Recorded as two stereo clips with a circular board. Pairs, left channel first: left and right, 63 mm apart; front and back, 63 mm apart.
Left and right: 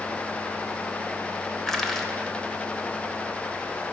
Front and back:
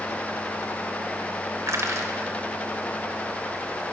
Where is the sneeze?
I don't hear a sneeze.